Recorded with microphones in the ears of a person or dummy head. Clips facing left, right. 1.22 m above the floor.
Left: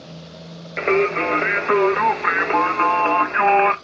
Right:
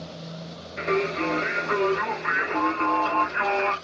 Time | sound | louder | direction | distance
0.8 | singing | left 6 dB | 80° left | 0.5 m